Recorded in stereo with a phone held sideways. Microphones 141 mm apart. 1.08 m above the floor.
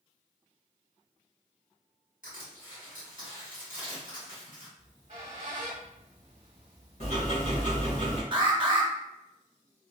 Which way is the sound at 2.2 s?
70° left (ahead or behind).